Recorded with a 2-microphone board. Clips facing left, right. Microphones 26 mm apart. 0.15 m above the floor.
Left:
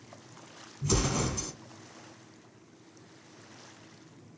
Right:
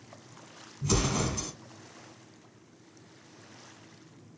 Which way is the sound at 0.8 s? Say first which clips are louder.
Right 1 dB; 10° right (ahead or behind).